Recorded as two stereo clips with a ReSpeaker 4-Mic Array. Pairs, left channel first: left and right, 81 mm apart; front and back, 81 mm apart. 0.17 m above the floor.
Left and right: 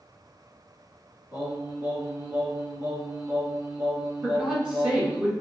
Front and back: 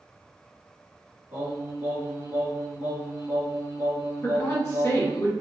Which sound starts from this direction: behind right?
Singing, at 1.3 s.